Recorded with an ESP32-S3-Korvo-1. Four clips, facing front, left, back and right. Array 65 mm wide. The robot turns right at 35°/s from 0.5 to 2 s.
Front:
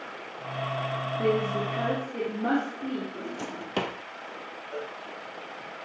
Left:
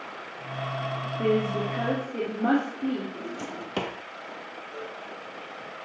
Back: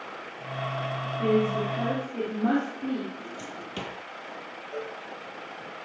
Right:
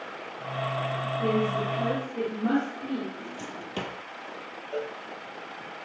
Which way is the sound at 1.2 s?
45° left.